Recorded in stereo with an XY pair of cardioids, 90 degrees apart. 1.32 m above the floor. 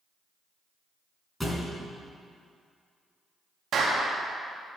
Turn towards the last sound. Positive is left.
turn(degrees=-65)